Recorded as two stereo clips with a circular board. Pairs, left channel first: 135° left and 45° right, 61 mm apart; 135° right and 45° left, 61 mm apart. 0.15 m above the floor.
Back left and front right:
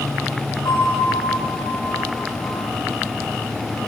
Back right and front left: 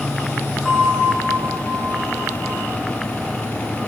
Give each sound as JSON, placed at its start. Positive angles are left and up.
{"t": 0.7, "sound": "a bell", "azimuth_deg": 130, "distance_m": 6.5}